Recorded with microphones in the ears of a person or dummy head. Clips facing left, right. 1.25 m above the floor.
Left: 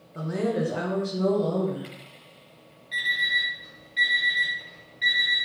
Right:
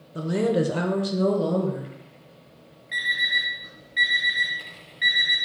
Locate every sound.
0.1 s a woman speaking: 30° right (ahead or behind), 0.6 m
2.9 s an alarm clock: 10° right (ahead or behind), 1.4 m